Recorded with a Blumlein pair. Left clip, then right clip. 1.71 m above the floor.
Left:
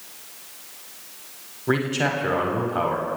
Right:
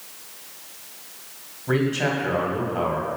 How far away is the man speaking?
About 1.1 m.